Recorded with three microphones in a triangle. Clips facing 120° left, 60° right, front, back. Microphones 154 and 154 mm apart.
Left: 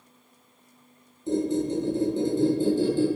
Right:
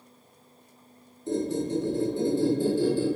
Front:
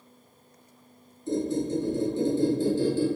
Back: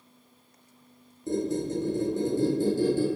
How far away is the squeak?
About 1.1 m.